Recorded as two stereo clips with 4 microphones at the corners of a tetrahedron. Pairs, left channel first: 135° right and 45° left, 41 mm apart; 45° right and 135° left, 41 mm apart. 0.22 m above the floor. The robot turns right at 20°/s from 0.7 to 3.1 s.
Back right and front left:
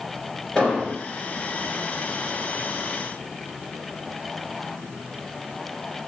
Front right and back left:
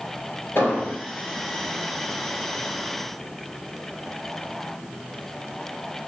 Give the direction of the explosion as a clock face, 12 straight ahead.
2 o'clock.